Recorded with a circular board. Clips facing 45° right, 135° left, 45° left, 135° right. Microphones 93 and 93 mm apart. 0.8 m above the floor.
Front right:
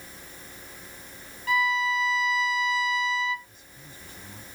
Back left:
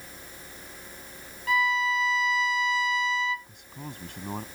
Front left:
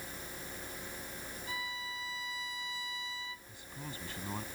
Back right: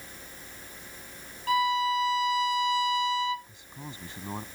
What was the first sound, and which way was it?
A violin, 135° right.